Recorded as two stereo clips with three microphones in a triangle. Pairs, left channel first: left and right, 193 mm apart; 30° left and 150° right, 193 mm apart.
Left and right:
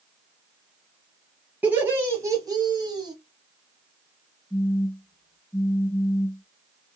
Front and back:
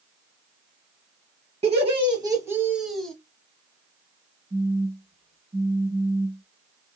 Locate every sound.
1.6 s laughter: 165° right, 1.2 m; by 3.1 s 50° right, 1.1 m
4.5 s a phone buzzing: 160° left, 1.4 m